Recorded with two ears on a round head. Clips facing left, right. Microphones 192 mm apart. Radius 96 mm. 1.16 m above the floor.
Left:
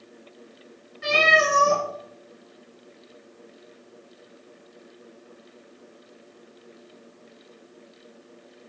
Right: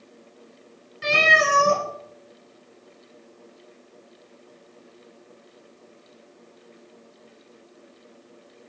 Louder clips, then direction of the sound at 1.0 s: Left 1 dB; 45° right (ahead or behind).